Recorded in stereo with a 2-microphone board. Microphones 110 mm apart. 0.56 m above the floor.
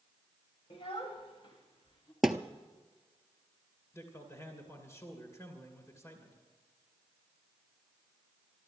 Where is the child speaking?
60° left (ahead or behind), 1.4 m; by 2.1 s 50° left (ahead or behind), 2.5 m.